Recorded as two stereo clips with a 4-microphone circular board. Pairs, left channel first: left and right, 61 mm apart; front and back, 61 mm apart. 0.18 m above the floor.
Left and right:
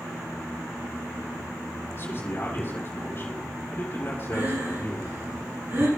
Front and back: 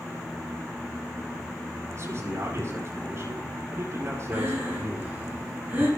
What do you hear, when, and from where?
1.9 s a man speaking: 145° left, 7.5 m
4.3 s breathing: 125° right, 5.5 m